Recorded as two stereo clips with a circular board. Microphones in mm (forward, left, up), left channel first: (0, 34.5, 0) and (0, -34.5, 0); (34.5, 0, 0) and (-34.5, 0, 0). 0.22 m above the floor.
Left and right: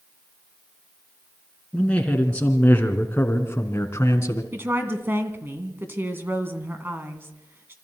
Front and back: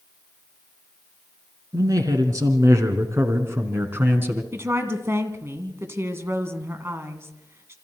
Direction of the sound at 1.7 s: 160° left.